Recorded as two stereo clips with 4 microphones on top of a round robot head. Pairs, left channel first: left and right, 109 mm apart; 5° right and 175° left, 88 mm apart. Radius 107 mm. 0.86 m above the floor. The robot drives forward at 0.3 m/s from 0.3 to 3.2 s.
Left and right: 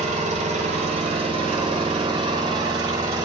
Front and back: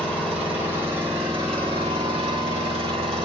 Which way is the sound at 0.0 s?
95° right.